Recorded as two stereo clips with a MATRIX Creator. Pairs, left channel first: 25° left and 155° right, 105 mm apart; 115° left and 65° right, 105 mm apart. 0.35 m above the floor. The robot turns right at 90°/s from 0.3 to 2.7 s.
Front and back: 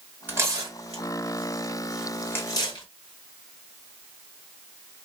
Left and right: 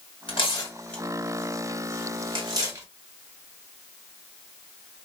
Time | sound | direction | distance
0.3 | tearing paper | 130° left | 1.5 m